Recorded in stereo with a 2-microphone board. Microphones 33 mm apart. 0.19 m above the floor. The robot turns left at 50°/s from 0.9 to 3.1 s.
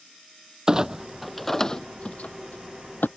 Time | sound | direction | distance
0.7 | a clunk | 20° right (ahead or behind) | ?